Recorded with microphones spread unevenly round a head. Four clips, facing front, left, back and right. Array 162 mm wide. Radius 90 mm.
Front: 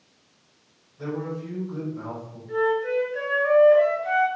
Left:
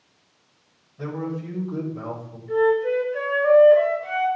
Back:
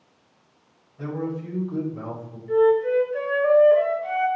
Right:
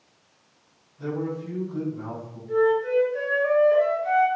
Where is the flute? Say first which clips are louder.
Left 1 dB, back 5 dB; 165° left, 1.8 m.